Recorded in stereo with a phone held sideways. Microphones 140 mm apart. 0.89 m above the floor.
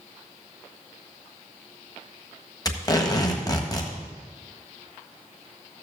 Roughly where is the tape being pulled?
Left.